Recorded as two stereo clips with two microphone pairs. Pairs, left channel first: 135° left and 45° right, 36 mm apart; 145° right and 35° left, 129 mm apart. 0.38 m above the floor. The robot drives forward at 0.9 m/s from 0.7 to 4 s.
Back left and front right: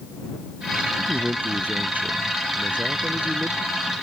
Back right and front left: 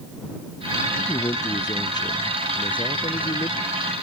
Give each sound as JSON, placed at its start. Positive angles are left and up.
{"t": 1.0, "sound": "a man speaking", "azimuth_deg": -80}